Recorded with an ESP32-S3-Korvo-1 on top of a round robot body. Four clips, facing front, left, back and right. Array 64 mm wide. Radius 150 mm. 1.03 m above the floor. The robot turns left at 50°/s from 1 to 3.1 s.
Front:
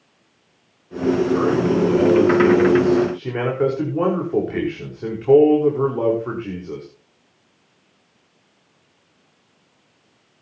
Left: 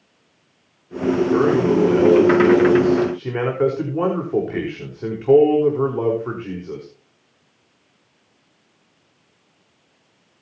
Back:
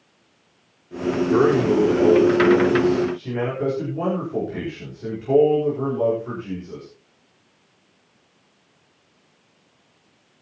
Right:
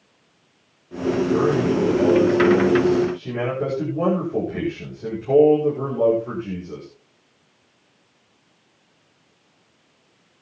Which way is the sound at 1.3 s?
145° left.